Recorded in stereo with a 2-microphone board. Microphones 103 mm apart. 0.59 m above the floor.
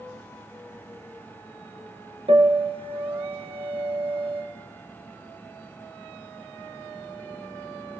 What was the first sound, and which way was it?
A piano, 65° right (ahead or behind).